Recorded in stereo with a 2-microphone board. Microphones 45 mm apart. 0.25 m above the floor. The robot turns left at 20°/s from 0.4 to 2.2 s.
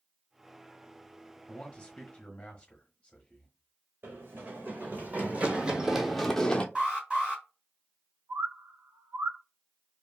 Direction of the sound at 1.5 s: 25° left (ahead or behind).